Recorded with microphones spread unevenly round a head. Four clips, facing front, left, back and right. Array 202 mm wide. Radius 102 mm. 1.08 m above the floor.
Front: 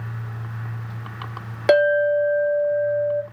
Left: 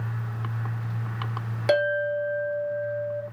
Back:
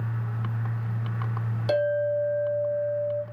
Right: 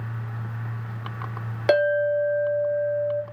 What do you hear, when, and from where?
1.7 s a clink: 20° right, 0.5 m